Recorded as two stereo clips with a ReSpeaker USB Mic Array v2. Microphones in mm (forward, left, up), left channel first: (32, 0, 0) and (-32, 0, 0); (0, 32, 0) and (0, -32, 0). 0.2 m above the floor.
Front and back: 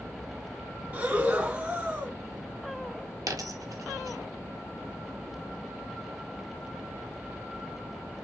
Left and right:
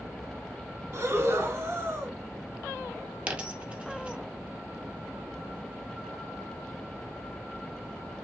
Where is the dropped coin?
155° right, 0.7 m.